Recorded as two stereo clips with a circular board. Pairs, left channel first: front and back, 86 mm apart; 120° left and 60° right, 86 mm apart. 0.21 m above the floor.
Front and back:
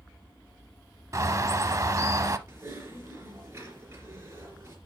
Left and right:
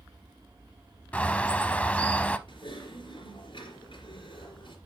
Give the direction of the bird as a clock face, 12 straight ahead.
6 o'clock.